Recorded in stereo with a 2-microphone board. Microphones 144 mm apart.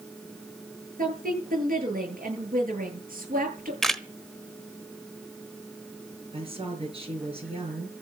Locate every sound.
1.0 s a woman speaking: 80° right, 9 m
3.8 s a camera shutter: centre (ahead or behind), 0.9 m
6.3 s a woman speaking: 45° right (ahead or behind), 6.5 m